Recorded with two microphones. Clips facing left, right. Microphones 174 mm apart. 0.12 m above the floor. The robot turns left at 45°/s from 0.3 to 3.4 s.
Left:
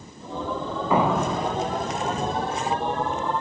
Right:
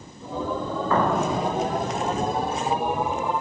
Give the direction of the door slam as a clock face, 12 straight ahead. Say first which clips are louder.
Left 1 dB; 12 o'clock.